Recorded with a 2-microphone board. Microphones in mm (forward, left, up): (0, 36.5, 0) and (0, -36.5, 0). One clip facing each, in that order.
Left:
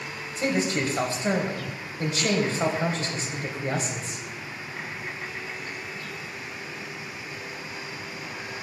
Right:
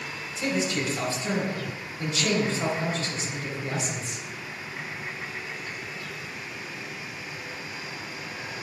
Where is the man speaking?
40° left (ahead or behind), 3 m.